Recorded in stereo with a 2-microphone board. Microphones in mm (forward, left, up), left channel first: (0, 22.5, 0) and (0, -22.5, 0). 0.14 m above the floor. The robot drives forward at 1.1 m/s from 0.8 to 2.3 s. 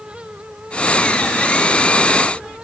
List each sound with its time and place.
Only background noise.